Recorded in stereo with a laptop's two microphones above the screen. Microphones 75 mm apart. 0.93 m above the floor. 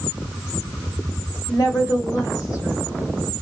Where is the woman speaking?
55° left (ahead or behind), 1.7 m; by 2.8 s 35° left (ahead or behind), 1.4 m.